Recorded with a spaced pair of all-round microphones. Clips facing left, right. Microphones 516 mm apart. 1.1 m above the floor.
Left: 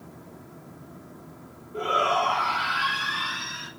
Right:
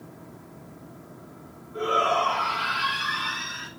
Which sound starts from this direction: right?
A shout, at 1.7 s.